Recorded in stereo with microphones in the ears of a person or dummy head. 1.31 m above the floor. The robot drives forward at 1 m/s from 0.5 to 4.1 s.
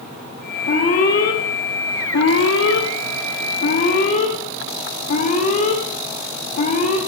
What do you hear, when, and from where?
0.7 s an alarm: 50° left (ahead or behind), 2.5 m; by 7.0 s 45° left (ahead or behind), 2.5 m